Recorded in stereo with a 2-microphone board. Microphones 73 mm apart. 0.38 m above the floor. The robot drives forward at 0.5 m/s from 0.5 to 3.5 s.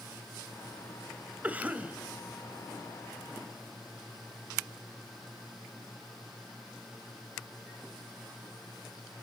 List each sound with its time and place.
1.4 s a cough: 20° right (ahead or behind), 1.4 m; by 2.0 s 15° right (ahead or behind), 1.6 m